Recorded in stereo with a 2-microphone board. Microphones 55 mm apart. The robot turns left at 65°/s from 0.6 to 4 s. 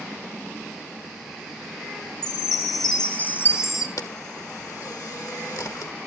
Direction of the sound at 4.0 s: 70° left (ahead or behind).